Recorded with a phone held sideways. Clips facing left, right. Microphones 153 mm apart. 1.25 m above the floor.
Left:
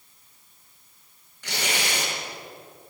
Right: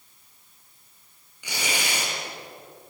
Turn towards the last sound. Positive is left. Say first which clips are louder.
# left 1 dB
turn(degrees=-10)  # may be behind; listen again after turning